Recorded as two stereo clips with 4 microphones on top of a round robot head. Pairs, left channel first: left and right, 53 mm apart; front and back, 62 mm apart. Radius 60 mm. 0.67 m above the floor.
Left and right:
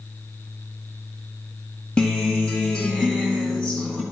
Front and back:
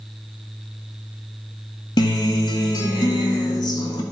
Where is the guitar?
10° left, 1.8 m.